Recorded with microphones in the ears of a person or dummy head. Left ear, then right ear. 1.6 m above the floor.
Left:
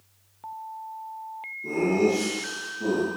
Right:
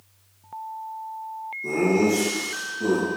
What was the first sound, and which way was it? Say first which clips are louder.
Laughter: right 2 dB; 10° right (ahead or behind).